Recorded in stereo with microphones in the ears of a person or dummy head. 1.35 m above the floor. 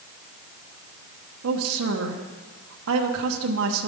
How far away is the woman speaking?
About 1.1 m.